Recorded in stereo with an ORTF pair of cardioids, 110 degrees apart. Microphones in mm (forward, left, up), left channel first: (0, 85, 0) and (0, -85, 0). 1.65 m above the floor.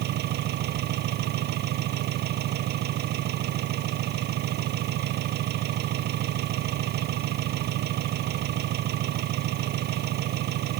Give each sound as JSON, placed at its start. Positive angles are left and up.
{"t": 0.0, "sound": "an engine running", "azimuth_deg": -70}